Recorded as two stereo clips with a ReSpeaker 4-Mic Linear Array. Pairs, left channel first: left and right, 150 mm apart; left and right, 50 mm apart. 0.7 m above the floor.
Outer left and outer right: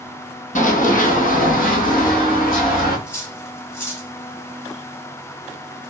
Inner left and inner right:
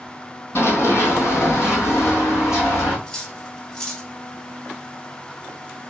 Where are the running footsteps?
60° left (ahead or behind), 1.4 m; by 3.0 s 70° left (ahead or behind), 2.5 m.